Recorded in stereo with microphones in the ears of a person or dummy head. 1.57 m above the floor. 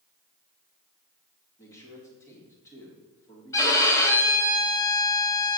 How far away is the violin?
About 1.7 m.